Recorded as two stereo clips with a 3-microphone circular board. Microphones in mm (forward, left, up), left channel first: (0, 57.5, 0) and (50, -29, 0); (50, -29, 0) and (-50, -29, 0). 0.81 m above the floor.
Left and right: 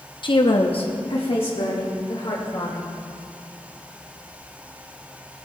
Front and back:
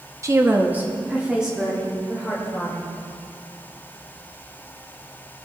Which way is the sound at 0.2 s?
130° left.